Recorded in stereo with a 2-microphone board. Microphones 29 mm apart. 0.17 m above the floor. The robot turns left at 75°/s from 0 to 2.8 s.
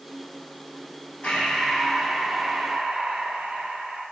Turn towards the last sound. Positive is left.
turn(degrees=-70)